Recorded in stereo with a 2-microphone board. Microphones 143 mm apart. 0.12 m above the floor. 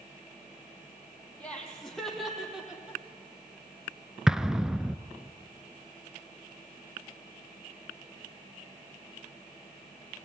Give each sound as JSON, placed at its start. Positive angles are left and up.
{"t": 1.4, "sound": "laughter", "side_deg": 10, "distance_m": 4.5}
{"t": 4.3, "sound": "an explosion", "side_deg": -5, "distance_m": 0.6}